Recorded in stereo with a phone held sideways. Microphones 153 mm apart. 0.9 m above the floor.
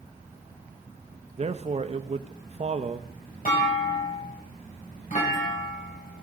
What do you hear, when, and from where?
1.4 s a man speaking: 40° right (ahead or behind), 0.6 m
3.5 s a clunk: 60° left (ahead or behind), 2.5 m